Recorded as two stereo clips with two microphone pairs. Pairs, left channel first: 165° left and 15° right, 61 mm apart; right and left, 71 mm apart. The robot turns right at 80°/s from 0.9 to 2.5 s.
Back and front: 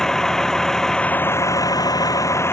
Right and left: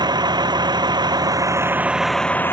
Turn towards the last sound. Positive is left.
turn(degrees=-150)